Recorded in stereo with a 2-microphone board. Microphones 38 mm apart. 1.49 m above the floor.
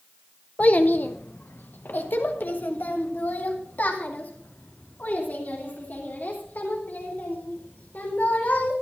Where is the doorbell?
No doorbell in this recording.